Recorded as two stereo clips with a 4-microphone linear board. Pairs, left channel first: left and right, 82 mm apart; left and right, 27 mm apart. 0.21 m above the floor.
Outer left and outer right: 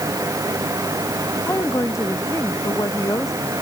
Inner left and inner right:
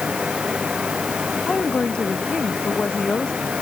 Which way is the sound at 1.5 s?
40° left (ahead or behind).